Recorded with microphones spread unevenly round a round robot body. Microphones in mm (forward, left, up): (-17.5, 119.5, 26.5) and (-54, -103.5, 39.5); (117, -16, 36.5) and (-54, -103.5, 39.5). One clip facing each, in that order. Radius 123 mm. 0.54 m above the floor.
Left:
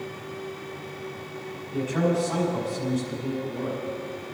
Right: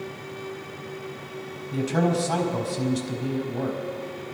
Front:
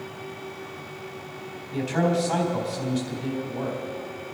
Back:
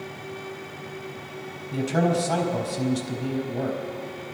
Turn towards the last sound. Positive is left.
turn(degrees=-130)